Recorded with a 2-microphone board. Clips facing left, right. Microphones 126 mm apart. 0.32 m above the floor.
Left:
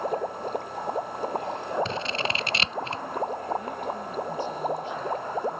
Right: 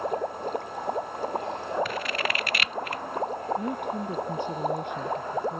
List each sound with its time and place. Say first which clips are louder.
1.9 s scissors: even; 25° left (ahead or behind)
3.6 s a woman speaking: right 2 dB; 55° right (ahead or behind)